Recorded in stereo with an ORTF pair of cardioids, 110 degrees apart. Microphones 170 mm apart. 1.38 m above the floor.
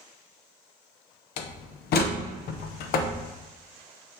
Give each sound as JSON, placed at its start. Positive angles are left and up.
{"t": 1.4, "sound": "a door slam", "azimuth_deg": 70, "distance_m": 0.8}